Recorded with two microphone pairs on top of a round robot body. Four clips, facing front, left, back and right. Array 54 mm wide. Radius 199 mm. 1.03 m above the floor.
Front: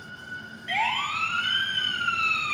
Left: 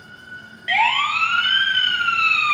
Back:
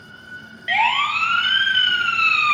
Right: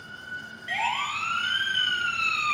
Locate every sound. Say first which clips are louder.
0.7 s a siren: left 10 dB, back 8 dB; 135° left, 3.5 m; by 2.5 s 150° left, 2.5 m